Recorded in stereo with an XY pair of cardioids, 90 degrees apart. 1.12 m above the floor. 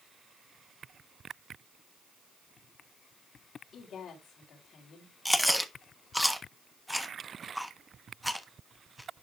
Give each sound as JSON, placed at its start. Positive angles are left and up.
{"t": 3.7, "sound": "a woman speaking", "azimuth_deg": 70, "distance_m": 4.0}
{"t": 5.2, "sound": "chewing", "azimuth_deg": 0, "distance_m": 1.1}